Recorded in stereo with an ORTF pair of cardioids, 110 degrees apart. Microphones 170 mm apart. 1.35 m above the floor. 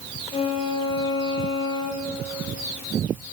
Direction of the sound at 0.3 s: 35° left.